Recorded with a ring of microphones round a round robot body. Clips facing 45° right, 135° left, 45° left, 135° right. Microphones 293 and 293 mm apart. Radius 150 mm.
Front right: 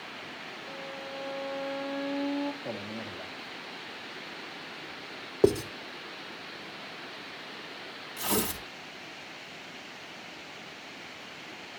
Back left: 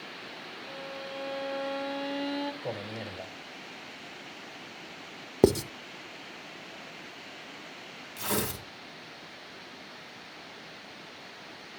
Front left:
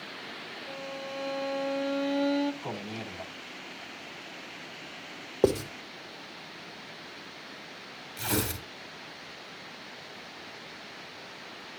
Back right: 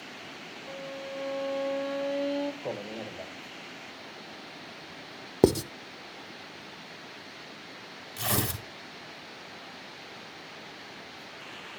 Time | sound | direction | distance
0.7 | a violin | 115° left | 1.0 m
2.6 | a man speaking | 110° left | 1.6 m
5.4 | writing | straight behind | 0.6 m
8.2 | tearing paper | 150° right | 4 m